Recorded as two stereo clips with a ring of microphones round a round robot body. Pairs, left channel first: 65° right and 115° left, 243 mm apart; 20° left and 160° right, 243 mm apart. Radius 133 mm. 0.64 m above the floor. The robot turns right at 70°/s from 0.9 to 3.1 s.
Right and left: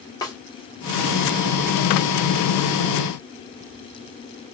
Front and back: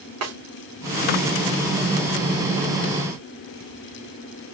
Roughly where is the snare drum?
Behind right.